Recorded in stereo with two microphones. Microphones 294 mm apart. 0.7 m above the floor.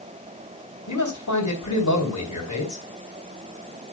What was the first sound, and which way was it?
A man speaking, 80° left.